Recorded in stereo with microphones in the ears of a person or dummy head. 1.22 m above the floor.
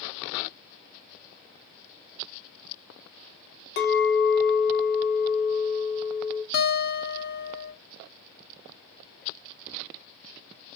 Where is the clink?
50° left (ahead or behind), 0.5 m.